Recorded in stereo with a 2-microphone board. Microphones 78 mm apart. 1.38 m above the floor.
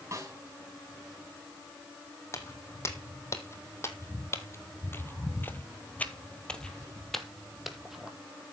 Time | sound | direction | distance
0.1 | a snare drum | 40° right (ahead or behind) | 4.5 m
2.3 | footsteps | 35° left (ahead or behind) | 2.5 m